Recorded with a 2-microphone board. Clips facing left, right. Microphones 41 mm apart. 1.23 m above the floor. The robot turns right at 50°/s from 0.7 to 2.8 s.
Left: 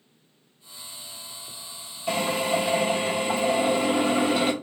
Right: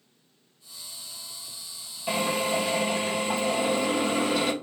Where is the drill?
10° right, 1.1 m; by 4.5 s 25° left, 1.1 m.